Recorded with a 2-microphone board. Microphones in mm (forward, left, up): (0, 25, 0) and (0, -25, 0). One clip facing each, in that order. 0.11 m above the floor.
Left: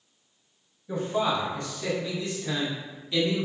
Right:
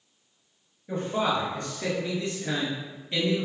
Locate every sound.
0.9 s a man speaking: 45° right (ahead or behind), 1.9 m; by 3.5 s 25° right (ahead or behind), 1.7 m